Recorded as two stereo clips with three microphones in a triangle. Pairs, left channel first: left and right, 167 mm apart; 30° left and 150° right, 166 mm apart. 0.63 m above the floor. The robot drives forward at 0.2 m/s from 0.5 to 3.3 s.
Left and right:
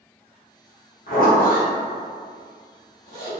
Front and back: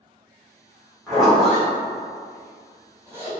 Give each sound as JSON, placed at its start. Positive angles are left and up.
{"t": 1.1, "sound": "a zipper", "azimuth_deg": 120, "distance_m": 1.1}